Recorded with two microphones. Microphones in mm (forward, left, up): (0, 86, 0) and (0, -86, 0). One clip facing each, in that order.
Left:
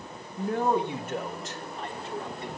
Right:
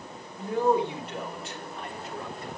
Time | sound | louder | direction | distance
0.4 | a man speaking | right 2 dB | 55° left (ahead or behind) | 2.5 m